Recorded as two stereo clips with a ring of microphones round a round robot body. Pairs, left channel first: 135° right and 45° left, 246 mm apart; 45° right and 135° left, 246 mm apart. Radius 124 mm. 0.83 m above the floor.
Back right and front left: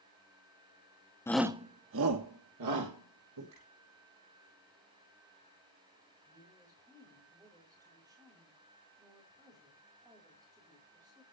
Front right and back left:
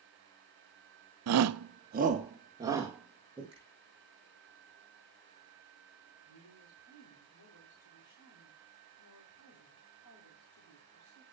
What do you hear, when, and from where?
1.3 s a shout: 145° left, 0.8 m; by 3.4 s 50° left, 3 m
3.5 s a finger snap: 65° left, 9.5 m
6.3 s a woman speaking: 30° right, 4.5 m